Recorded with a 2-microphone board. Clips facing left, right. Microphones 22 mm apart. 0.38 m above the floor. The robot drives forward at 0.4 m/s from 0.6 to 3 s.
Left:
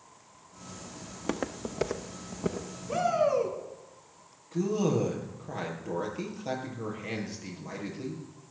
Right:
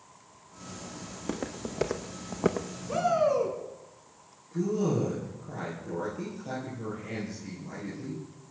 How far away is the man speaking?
About 7.5 m.